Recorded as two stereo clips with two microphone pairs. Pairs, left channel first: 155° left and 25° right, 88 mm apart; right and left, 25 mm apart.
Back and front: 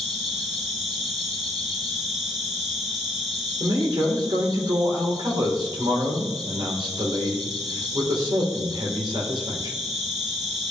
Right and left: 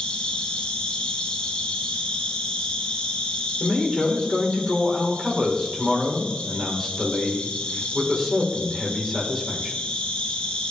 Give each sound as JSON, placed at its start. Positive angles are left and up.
{"t": 0.0, "sound": "an insect", "azimuth_deg": -120, "distance_m": 2.0}
{"t": 3.6, "sound": "a man speaking", "azimuth_deg": 0, "distance_m": 1.8}